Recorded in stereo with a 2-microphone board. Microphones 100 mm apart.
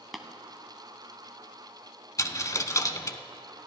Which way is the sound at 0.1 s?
Centre (ahead or behind).